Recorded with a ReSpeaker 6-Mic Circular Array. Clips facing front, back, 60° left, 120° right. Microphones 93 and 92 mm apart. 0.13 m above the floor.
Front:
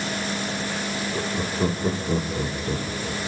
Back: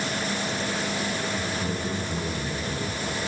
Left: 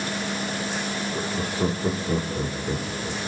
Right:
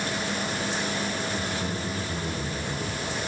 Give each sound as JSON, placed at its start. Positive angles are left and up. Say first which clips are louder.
{"t": 1.1, "sound": "laughter", "louder": "front 2 dB, left 3 dB", "azimuth_deg": 35, "distance_m": 5.5}